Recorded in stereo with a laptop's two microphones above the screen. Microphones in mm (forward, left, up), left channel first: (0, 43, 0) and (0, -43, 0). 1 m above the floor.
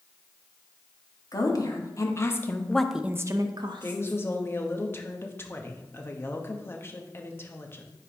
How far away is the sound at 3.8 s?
About 0.9 m.